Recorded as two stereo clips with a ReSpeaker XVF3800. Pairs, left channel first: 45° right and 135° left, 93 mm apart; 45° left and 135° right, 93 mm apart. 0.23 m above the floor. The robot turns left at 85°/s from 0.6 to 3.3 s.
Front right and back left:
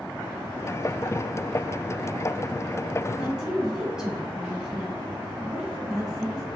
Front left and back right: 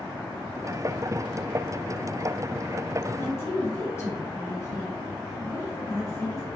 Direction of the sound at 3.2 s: 70° left.